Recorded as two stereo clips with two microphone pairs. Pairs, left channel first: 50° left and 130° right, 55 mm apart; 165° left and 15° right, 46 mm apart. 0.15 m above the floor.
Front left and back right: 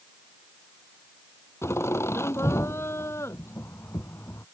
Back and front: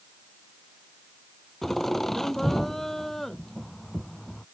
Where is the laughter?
80° left.